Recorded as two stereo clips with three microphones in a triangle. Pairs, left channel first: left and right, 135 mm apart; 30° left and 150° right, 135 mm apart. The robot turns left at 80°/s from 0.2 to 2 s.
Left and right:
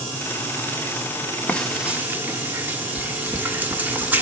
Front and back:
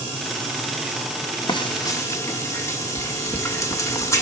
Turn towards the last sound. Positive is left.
turn(degrees=-25)